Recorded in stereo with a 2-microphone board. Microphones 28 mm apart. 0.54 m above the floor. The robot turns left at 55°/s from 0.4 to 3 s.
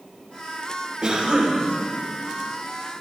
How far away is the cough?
About 3 m.